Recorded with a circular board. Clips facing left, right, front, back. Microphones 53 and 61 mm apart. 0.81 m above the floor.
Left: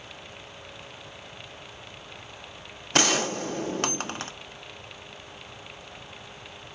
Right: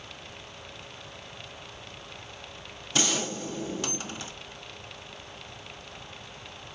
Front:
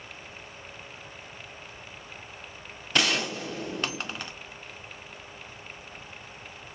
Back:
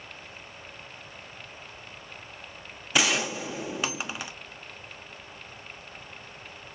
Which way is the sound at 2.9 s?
100° left.